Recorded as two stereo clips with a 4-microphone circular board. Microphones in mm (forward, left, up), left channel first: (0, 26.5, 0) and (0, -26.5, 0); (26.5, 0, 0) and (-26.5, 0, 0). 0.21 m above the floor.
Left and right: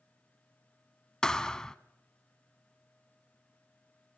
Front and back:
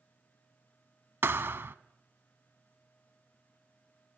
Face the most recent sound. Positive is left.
turn(degrees=165)